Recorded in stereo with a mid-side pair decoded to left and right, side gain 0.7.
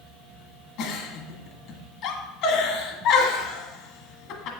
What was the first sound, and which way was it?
A giggle, 65° left.